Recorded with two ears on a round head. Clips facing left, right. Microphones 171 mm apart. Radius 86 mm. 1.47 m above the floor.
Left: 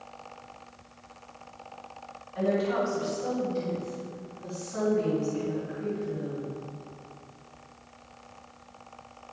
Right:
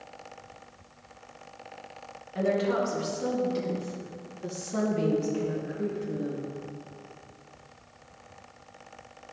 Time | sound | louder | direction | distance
2.4 | a woman speaking | even | 70° right (ahead or behind) | 3 m